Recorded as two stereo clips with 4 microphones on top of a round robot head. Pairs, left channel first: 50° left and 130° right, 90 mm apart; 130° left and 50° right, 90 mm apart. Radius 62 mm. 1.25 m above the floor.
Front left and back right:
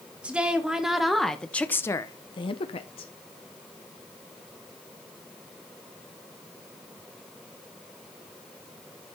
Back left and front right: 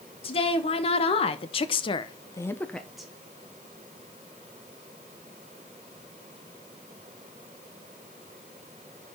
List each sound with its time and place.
0.2 s a woman speaking: 150° left, 2 m; by 3.1 s 35° left, 1.1 m